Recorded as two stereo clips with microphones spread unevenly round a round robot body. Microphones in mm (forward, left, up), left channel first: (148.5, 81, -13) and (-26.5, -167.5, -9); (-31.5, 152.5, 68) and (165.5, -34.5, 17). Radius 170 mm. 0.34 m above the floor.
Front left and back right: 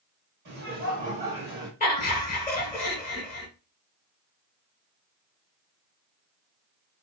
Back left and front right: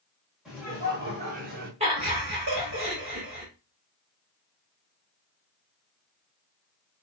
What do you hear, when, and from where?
0.5 s laughter: 115° right, 1.0 m; by 1.7 s 50° right, 1.2 m
1.8 s laughter: 5° right, 1.8 m